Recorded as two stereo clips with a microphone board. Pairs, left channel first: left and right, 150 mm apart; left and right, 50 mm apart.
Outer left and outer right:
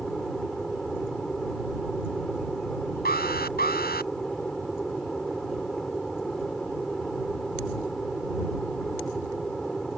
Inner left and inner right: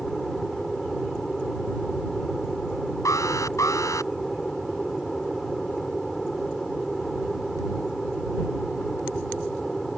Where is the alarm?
90° left.